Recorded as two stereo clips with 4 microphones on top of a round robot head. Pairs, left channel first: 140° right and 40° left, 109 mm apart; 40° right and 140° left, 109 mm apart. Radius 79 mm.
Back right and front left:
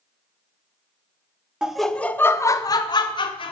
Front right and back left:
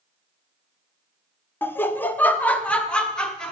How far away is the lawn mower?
No lawn mower in this recording.